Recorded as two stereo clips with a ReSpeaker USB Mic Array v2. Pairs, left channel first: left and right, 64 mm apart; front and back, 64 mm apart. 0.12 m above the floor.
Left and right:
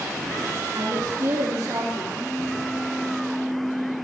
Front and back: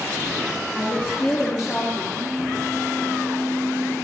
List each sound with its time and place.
0.7 s a woman speaking: 45° right, 3 m; by 2.0 s 50° right, 4.5 m
2.1 s a phone buzzing: 165° left, 4.5 m